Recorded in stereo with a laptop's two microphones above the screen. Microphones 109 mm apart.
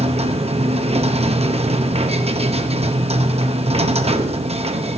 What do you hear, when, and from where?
0.0 s a machine running: 65° right (ahead or behind), 0.8 m